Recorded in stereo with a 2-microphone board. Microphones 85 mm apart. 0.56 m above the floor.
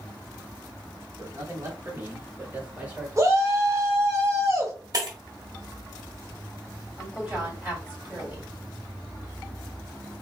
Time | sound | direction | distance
1.2 | a man speaking | 45° right (ahead or behind) | 1.3 m
3.2 | a shout | 40° right (ahead or behind) | 1.4 m
4.9 | breaking glass | 50° right (ahead or behind) | 1.3 m
7.0 | a woman speaking | 15° right (ahead or behind) | 2.5 m